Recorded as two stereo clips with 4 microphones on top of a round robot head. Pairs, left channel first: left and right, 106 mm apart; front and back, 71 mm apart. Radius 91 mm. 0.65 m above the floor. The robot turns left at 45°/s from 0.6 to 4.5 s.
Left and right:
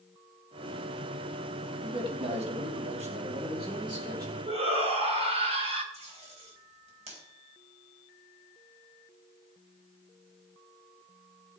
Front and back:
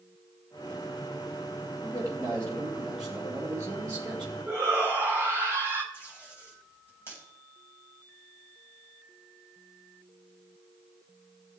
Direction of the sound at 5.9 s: 110° right.